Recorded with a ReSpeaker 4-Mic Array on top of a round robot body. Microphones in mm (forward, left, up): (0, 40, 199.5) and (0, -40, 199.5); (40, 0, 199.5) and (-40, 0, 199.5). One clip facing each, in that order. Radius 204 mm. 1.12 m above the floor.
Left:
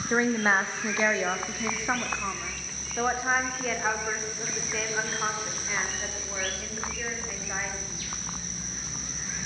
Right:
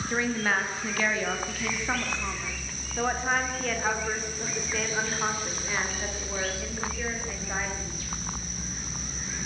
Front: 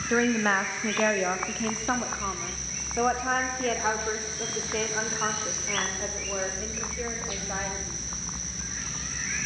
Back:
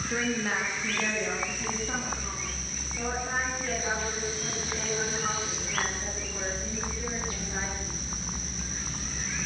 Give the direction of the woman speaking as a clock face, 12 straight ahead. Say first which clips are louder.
Left 4 dB, front 7 dB; 11 o'clock.